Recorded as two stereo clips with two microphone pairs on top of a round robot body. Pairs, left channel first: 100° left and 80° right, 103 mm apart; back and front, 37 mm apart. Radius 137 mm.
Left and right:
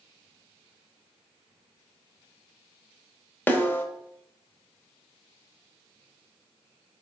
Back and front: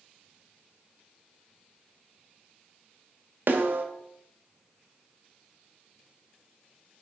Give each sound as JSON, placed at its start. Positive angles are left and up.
{"t": 3.5, "sound": "a snare drum", "azimuth_deg": 25, "distance_m": 1.1}